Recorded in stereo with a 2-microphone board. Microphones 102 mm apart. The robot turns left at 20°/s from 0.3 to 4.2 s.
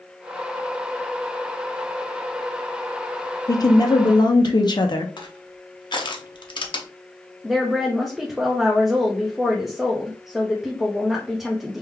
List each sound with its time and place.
3.5 s a woman speaking: 40° left (ahead or behind), 0.6 m; by 5.1 s 50° left (ahead or behind), 0.6 m
5.2 s crushing: 55° left (ahead or behind), 0.6 m
7.4 s a woman speaking: centre (ahead or behind), 0.6 m